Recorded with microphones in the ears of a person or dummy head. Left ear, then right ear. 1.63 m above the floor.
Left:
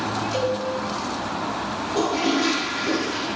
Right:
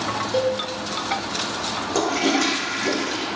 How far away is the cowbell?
About 1.3 m.